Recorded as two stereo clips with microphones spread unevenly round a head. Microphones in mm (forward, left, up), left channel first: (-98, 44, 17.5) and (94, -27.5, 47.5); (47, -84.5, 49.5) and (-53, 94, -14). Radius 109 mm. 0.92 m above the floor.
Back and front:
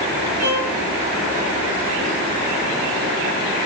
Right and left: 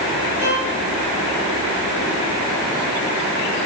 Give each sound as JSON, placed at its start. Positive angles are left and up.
{"t": 0.4, "sound": "a violin", "azimuth_deg": 25, "distance_m": 5.0}